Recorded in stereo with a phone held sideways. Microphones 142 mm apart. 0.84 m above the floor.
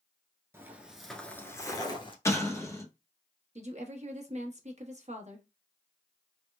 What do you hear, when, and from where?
0.5 s footsteps: 20° right (ahead or behind), 0.8 m; by 2.1 s 40° left (ahead or behind), 0.9 m
2.2 s an explosion: 20° left (ahead or behind), 0.8 m
3.5 s a woman speaking: 55° right (ahead or behind), 1.0 m